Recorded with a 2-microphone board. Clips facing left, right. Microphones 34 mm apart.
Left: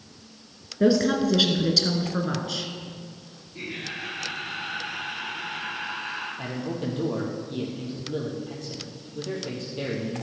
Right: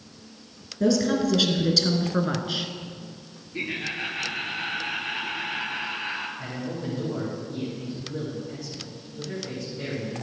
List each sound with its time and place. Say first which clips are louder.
0.8 s a woman speaking: left 2 dB; 25° left (ahead or behind), 1.5 m; by 2.7 s 25° right (ahead or behind), 1.5 m
3.5 s laughter: right 4 dB; 45° right (ahead or behind), 3 m
6.4 s a man speaking: left 2 dB; 70° left (ahead or behind), 3.5 m